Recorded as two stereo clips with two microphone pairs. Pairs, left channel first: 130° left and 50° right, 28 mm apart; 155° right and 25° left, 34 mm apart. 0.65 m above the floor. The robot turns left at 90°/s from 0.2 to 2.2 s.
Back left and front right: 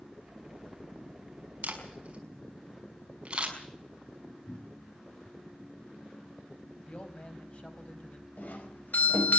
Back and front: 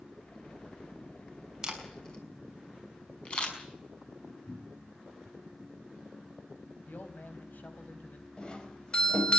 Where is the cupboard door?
145° left, 5.5 m.